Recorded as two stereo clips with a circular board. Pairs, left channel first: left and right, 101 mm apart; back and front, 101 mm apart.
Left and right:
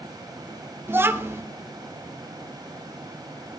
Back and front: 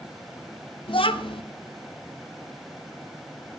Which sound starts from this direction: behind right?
A child speaking, at 0.9 s.